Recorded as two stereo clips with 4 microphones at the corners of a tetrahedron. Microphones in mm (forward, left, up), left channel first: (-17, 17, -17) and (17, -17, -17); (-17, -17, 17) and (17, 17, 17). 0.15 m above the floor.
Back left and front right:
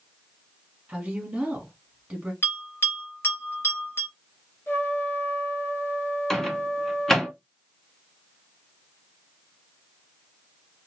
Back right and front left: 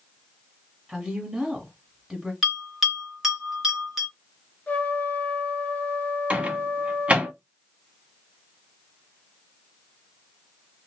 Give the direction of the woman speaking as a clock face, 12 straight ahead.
12 o'clock.